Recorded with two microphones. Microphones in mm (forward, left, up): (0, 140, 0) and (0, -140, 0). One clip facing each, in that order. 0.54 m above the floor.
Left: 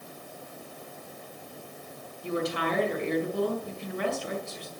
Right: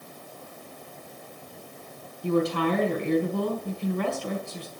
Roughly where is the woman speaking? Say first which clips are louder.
Right 6 dB; right.